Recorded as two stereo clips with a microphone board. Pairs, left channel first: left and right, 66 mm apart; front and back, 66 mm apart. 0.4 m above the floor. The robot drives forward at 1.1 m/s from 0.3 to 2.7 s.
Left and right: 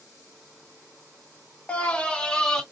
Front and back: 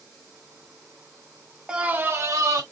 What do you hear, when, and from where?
1.7 s a scream: 125° left, 0.8 m; by 2.6 s 170° left, 1.4 m